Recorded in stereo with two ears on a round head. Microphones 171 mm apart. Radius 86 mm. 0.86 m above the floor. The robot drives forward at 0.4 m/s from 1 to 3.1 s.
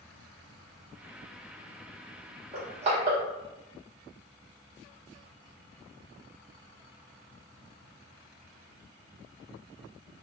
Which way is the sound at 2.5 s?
35° right (ahead or behind).